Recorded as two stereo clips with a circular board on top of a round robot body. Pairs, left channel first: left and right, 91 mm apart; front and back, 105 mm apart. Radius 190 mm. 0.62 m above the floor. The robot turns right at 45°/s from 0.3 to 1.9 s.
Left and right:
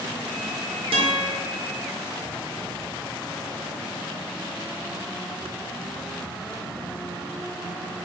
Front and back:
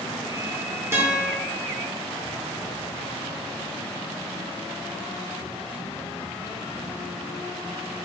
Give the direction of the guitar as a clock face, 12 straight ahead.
4 o'clock.